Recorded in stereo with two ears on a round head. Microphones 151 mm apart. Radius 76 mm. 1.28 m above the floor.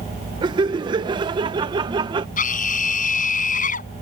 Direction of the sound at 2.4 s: 50° left (ahead or behind).